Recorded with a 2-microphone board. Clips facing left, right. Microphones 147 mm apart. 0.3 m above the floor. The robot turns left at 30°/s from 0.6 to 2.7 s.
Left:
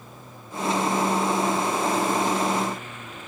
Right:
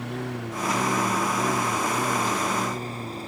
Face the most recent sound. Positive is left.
turn(degrees=-35)  # may be behind; listen again after turning